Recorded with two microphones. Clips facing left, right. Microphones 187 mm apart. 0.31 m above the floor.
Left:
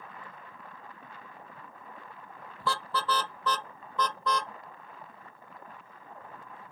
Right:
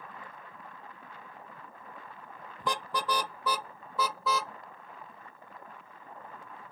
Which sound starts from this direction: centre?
A car horn, at 2.6 s.